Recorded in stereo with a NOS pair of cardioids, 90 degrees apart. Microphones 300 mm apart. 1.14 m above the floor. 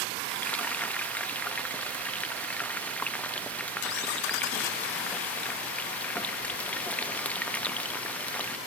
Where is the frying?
5° left.